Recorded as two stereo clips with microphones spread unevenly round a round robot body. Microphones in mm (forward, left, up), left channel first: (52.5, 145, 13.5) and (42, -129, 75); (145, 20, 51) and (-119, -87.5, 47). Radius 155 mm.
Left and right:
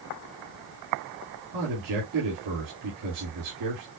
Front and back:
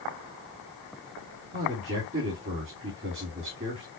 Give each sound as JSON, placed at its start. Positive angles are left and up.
{"t": 1.5, "sound": "a man speaking", "azimuth_deg": -105, "distance_m": 2.5}